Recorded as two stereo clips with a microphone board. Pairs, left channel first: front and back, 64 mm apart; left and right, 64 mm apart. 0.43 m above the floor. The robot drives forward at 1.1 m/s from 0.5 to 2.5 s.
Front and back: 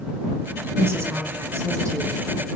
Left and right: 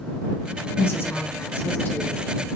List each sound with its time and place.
0.8 s a woman speaking: 135° left, 2.5 m; by 2.2 s 150° left, 4 m